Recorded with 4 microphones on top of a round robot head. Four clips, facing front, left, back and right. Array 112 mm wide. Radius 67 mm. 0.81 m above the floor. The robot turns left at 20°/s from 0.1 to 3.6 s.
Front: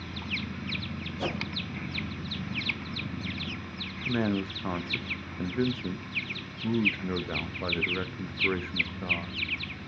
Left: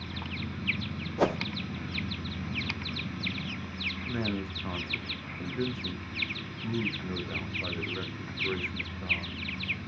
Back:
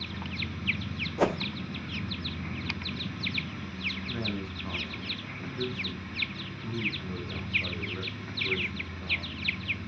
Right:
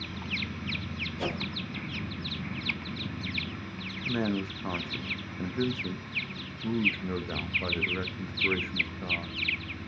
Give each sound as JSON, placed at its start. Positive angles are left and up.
{"t": 1.2, "sound": "a whoosh", "azimuth_deg": 140, "distance_m": 0.9}
{"t": 4.1, "sound": "a man speaking", "azimuth_deg": -20, "distance_m": 0.9}